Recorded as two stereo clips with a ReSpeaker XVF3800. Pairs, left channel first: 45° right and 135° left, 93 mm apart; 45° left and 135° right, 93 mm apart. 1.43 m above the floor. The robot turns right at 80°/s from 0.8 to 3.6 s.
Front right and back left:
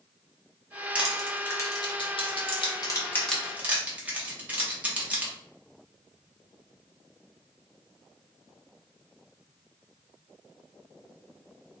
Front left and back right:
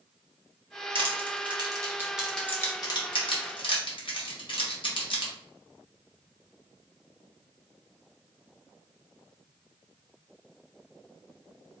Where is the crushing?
150° right, 1.1 m; by 5.3 s 60° left, 1.1 m.